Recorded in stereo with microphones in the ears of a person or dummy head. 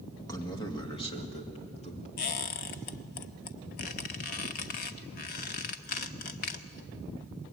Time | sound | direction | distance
0.3 | a man speaking | 20° left (ahead or behind) | 2 m
2.2 | a squeak | 40° left (ahead or behind) | 1.0 m